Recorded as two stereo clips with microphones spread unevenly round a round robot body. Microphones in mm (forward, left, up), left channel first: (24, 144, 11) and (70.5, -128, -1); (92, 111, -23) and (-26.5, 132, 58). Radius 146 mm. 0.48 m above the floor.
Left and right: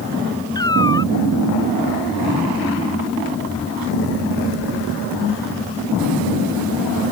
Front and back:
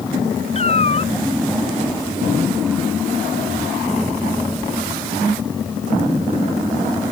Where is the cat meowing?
25° left.